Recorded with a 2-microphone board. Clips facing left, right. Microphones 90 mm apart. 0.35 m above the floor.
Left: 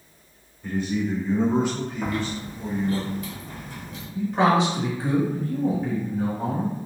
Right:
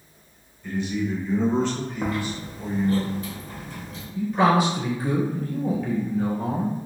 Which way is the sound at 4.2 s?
30° left (ahead or behind).